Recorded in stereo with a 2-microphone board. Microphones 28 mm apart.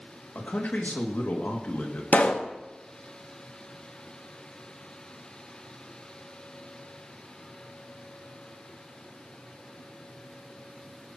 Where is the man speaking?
80° left, 2.5 m.